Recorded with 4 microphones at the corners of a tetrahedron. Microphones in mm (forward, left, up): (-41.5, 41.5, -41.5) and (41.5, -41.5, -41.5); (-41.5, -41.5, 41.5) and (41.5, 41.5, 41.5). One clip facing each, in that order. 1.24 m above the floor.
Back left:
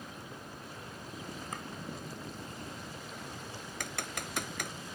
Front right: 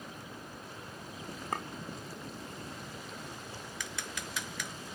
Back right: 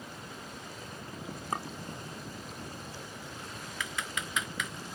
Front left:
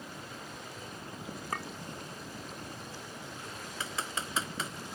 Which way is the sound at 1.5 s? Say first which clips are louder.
Front right 9 dB, back right 3 dB; 70° right.